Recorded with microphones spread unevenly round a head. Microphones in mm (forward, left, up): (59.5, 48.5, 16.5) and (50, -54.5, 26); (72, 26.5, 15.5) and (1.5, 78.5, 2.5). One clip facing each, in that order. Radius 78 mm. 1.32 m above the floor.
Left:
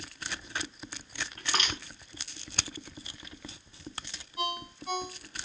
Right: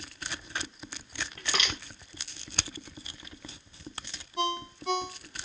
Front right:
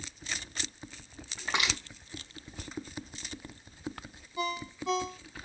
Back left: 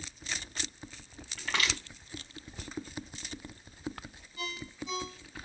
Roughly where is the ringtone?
Right.